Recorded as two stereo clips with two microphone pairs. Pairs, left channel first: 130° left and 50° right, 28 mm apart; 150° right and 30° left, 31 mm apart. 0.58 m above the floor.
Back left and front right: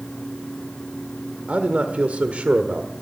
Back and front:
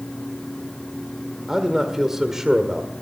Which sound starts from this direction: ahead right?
A man speaking, at 1.5 s.